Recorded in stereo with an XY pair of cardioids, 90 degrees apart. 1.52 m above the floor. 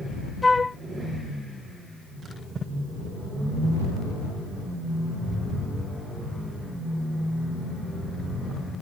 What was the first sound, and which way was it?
A flute, 20° left.